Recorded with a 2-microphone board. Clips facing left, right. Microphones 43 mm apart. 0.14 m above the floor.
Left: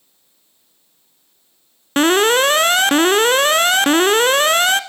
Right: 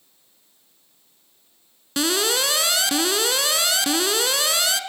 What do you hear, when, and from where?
2.0 s an alarm: 45° left (ahead or behind), 1.0 m